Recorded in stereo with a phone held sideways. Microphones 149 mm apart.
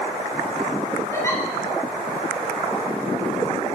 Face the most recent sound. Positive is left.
turn(degrees=20)  # may be behind; listen again after turning